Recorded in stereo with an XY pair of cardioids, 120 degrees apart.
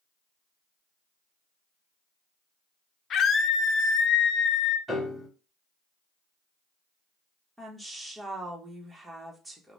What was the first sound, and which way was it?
A scream, 50° left.